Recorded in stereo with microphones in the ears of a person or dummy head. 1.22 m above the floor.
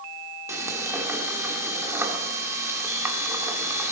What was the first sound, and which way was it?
Frying, 15° right (ahead or behind).